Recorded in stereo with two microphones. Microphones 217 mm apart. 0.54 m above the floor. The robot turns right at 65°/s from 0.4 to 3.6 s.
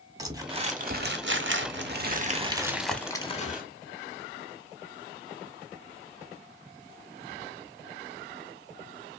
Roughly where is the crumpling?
Behind.